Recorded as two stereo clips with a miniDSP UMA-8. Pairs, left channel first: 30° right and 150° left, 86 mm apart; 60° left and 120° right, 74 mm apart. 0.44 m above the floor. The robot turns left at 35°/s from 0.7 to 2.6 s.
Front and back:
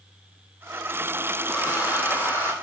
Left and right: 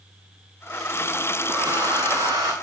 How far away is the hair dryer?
About 1.4 m.